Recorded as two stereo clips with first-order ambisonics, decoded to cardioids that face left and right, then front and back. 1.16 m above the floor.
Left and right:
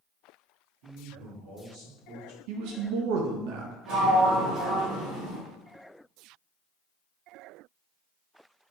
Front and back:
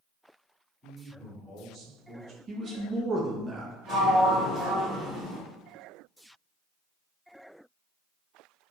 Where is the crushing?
No crushing in this recording.